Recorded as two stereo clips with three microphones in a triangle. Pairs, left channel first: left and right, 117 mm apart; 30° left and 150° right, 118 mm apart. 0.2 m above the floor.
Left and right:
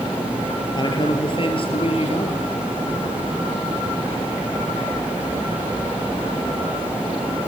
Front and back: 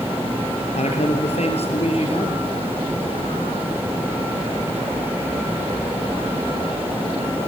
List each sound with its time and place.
0.8 s a man speaking: 40° left, 4 m; by 2.5 s 65° left, 3.5 m